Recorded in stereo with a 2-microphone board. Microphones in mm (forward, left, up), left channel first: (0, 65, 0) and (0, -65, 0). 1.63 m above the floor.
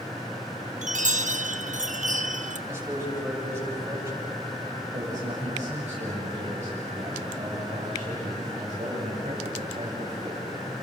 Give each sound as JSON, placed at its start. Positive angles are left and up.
{"t": 0.8, "sound": "a chime", "side_deg": -70, "distance_m": 1.1}
{"t": 2.7, "sound": "a man speaking", "side_deg": -15, "distance_m": 7.5}
{"t": 4.9, "sound": "a man speaking", "side_deg": -55, "distance_m": 7.5}